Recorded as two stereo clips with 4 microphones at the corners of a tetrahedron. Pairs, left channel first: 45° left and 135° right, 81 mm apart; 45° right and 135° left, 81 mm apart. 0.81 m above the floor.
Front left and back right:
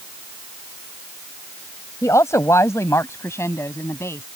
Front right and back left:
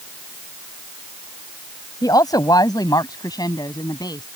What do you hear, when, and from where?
2.0 s a woman speaking: 5° right; by 4.2 s 10° right